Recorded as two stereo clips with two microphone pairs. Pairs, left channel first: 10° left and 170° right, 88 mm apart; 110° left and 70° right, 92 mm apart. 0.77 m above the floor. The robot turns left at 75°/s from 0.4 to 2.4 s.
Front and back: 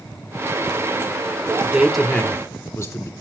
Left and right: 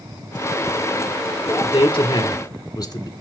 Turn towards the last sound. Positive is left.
turn(degrees=65)